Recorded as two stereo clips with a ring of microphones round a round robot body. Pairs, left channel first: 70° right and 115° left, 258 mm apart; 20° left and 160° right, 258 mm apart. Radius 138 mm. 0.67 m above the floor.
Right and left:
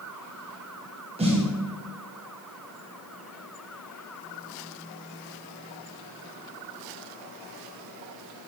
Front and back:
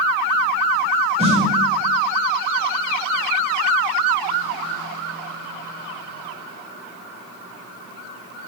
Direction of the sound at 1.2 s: 160° left.